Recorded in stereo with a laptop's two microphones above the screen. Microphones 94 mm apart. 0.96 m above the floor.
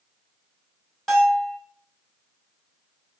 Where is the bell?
5° left (ahead or behind), 2 m.